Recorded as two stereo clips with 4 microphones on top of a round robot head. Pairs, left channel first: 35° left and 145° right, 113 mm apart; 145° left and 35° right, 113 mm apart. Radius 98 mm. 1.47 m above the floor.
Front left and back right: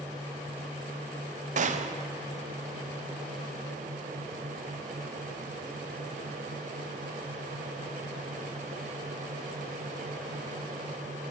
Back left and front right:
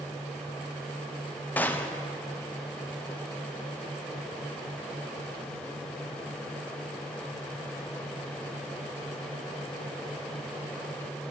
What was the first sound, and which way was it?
A gunshot, 140° right.